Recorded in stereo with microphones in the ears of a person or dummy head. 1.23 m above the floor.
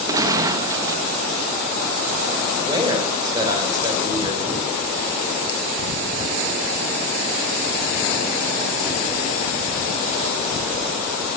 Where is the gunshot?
20° right (ahead or behind), 0.7 m.